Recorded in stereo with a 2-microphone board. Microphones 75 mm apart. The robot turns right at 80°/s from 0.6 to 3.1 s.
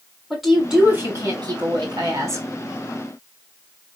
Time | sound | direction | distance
0.3 | a woman speaking | straight behind | 3 m